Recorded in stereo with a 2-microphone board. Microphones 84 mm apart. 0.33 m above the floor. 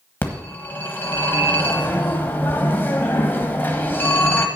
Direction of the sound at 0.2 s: 25° left (ahead or behind).